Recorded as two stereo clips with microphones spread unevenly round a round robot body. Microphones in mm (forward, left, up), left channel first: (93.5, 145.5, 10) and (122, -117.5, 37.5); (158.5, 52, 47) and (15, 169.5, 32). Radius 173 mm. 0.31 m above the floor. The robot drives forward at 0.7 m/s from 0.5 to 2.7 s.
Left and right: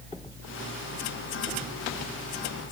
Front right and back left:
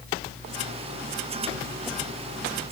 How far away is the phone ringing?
I don't hear a phone ringing.